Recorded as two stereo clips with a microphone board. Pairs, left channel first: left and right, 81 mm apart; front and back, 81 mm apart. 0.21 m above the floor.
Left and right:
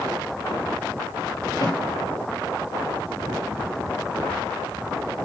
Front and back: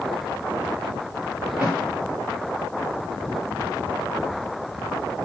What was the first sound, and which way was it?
A snare drum, 105° left.